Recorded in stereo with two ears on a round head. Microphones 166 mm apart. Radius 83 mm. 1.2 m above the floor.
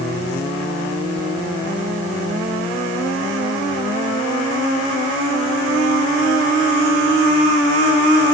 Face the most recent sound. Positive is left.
No sound to turn to.